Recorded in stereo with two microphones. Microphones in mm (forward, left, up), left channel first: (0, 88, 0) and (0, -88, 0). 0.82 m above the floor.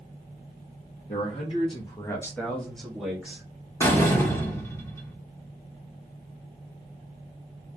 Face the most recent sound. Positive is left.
turn(degrees=15)  # may be behind; listen again after turning